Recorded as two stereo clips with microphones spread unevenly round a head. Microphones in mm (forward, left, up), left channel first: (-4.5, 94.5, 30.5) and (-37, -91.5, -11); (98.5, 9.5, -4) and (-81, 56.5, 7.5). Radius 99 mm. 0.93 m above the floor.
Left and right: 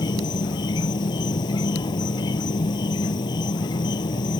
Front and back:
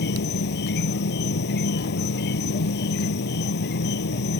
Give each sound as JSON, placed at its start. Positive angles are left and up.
{"t": 0.0, "sound": "an insect", "azimuth_deg": 15}